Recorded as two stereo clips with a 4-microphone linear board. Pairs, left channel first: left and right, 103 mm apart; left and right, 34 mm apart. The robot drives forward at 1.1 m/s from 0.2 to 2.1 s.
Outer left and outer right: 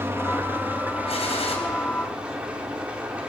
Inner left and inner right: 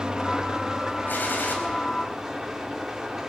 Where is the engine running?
20° right (ahead or behind), 2 m; by 3.3 s 10° right (ahead or behind), 4 m.